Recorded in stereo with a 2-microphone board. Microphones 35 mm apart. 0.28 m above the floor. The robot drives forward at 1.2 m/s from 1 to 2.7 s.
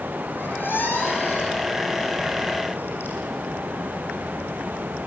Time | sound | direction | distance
0.3 | a squeak | 70° left (ahead or behind) | 8 m